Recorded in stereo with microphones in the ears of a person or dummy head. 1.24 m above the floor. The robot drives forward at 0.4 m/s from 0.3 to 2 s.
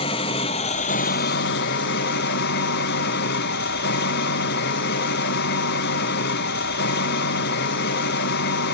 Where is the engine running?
35° left (ahead or behind), 0.7 m; by 8.7 s 50° left (ahead or behind), 0.5 m.